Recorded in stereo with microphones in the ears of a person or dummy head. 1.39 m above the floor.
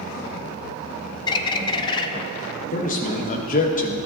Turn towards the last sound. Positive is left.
turn(degrees=45)  # may be behind; listen again after turning